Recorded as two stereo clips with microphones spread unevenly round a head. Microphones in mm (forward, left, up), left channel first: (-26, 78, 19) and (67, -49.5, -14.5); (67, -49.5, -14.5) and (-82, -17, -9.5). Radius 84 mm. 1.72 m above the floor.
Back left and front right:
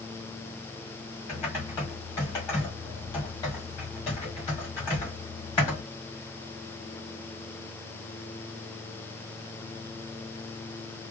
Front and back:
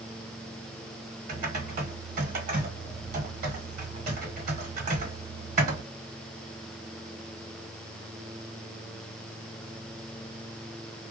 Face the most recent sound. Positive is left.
turn(degrees=-165)